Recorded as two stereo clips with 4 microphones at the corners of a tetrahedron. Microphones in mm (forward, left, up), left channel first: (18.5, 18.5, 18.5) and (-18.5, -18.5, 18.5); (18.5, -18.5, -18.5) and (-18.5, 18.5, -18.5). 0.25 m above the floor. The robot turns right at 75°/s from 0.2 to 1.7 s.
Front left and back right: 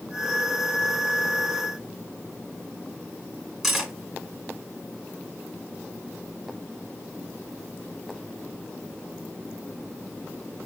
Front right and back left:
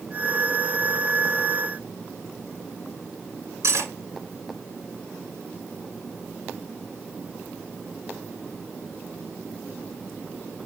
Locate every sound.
3.6 s cutlery clinking: 140° left, 1.8 m